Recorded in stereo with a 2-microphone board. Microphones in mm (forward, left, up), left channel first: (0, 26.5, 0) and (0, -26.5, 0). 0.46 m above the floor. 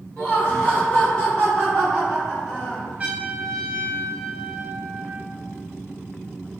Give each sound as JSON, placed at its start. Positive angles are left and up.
{"t": 0.2, "sound": "laughter", "side_deg": 35, "distance_m": 1.5}
{"t": 3.0, "sound": "a trumpet", "side_deg": -30, "distance_m": 0.8}